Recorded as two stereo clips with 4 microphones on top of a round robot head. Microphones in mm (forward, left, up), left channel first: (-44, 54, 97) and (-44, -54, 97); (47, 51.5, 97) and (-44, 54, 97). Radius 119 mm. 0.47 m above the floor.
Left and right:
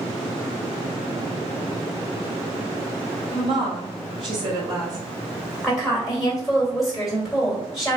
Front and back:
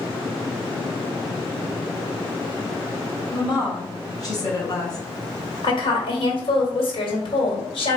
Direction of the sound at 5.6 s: Straight ahead.